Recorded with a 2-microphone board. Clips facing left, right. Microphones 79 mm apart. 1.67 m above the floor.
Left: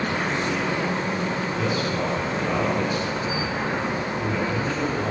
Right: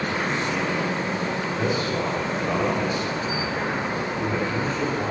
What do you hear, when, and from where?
1.6 s a man speaking: 20° right (ahead or behind), 4 m